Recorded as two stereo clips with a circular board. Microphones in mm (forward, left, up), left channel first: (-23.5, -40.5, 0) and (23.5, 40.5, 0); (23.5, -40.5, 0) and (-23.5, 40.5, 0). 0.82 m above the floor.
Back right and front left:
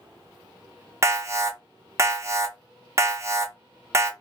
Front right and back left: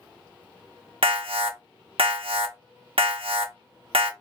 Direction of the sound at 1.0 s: 120° left.